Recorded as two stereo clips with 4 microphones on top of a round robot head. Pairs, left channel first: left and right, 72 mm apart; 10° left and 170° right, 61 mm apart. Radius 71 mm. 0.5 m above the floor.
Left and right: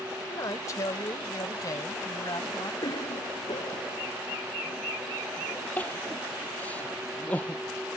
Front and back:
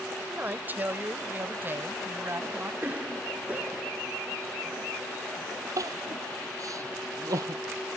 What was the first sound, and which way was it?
A man speaking, 135° left.